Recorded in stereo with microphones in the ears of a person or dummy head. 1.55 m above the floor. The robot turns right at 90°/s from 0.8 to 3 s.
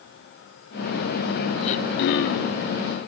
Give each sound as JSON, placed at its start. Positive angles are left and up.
{"t": 1.6, "sound": "throat clearing", "azimuth_deg": 45, "distance_m": 0.8}